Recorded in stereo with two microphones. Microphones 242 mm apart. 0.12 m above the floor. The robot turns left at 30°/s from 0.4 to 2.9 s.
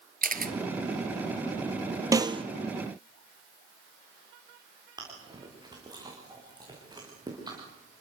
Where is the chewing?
15° right (ahead or behind), 8.5 m.